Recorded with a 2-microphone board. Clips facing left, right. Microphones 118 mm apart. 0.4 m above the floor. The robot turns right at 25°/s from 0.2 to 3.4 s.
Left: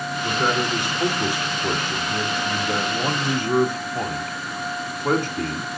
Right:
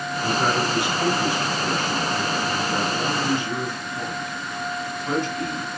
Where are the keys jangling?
No keys jangling in this recording.